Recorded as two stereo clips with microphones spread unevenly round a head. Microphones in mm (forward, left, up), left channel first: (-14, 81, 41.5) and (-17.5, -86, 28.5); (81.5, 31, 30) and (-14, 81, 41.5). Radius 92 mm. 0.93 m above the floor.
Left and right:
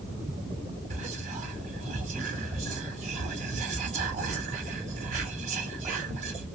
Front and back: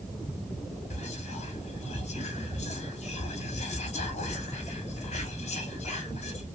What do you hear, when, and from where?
0.9 s whispering: 40° right, 1.1 m